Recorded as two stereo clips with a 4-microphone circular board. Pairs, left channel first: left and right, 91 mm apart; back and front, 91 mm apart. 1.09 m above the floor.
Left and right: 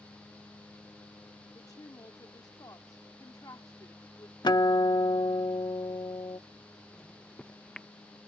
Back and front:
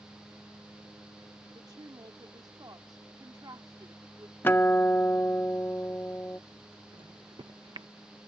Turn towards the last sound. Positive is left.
turn(degrees=10)